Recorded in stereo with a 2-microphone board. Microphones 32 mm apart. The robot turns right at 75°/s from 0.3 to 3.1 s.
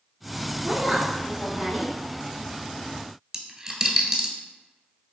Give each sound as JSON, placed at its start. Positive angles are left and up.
{"t": 0.6, "sound": "a woman speaking", "azimuth_deg": -125, "distance_m": 2.0}
{"t": 3.3, "sound": "a dropped coin", "side_deg": -20, "distance_m": 0.6}